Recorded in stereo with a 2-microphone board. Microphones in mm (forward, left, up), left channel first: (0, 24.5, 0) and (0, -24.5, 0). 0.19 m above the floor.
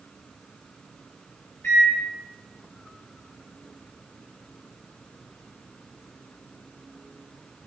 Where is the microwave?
45° left (ahead or behind), 1.8 m.